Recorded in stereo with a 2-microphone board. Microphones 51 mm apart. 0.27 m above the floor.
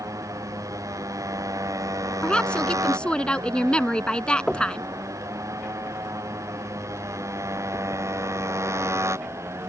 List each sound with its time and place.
0.0 s a motorcycle: 90° right; by 9.7 s 55° right (ahead or behind)
2.2 s a woman speaking: 20° left (ahead or behind)
4.5 s knocking: 5° left (ahead or behind)